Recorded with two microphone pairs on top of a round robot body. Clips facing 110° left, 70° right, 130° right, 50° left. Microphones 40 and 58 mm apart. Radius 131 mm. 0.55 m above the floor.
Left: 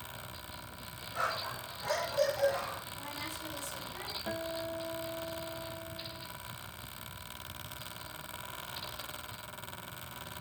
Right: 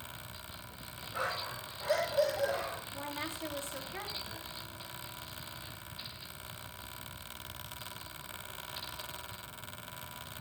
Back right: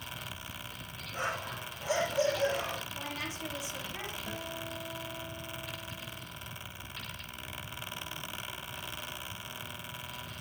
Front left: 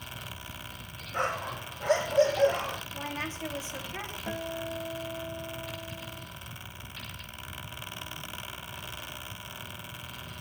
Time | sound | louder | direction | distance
1.1 | a dog barking | left 2 dB, front left 5 dB | 10° left | 10 m
2.9 | a woman speaking | right 2 dB, front left 3 dB | 15° right | 4 m
4.3 | a guitar | left 9 dB, front left 5 dB | 80° left | 3.5 m